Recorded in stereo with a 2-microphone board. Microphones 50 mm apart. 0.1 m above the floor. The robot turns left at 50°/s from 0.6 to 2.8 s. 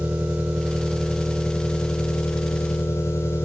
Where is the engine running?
155° right, 4.5 m; by 3.5 s 95° left, 4.5 m.